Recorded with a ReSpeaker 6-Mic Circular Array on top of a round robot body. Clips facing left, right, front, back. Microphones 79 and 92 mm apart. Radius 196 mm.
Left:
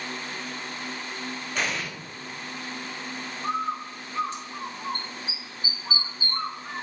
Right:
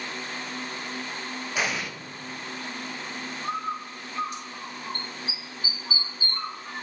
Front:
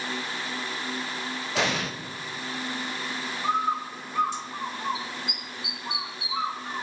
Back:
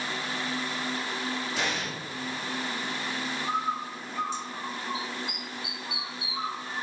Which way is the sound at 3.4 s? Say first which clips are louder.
Left 3 dB, front 5 dB; 30° left.